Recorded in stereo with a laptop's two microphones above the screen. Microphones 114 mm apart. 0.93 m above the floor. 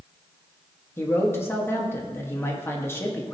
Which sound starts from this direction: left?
A man speaking, at 1.0 s.